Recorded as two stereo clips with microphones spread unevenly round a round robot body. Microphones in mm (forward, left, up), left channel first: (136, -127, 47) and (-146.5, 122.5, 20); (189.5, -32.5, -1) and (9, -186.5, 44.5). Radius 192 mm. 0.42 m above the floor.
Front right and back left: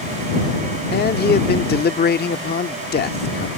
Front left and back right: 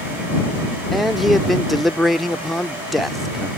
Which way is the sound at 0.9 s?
20° right.